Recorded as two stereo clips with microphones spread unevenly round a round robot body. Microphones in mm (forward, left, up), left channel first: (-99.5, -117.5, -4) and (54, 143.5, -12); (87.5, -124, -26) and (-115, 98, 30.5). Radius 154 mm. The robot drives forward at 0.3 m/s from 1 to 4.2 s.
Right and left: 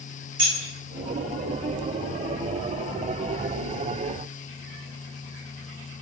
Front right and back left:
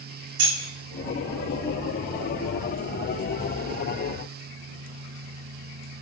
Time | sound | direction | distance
0.4 | keys jangling | 115° left | 0.9 m